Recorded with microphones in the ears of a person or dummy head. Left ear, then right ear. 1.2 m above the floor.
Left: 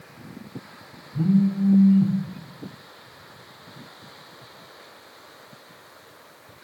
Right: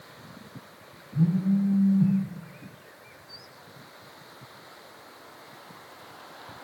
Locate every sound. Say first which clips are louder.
1.1 s a phone buzzing: left 4 dB; 25° left (ahead or behind), 0.9 m